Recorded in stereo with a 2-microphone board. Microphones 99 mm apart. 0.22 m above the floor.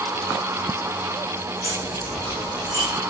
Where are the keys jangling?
40° right (ahead or behind), 8 m; by 2.9 s 30° right (ahead or behind), 9.5 m.